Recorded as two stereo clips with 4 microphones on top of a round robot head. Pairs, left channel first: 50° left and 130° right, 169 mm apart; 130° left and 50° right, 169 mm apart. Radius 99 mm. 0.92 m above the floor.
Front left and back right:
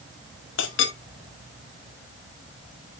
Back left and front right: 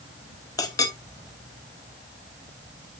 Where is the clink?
60° left, 1.0 m.